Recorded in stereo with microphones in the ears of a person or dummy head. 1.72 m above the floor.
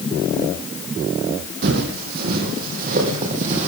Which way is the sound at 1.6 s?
55° right (ahead or behind).